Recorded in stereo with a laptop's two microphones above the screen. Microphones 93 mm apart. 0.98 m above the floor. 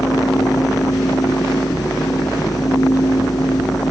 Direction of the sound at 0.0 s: 45° left (ahead or behind).